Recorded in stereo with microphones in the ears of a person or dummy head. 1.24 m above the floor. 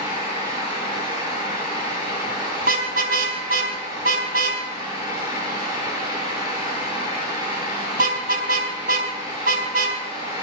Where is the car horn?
50° right (ahead or behind), 4.5 m.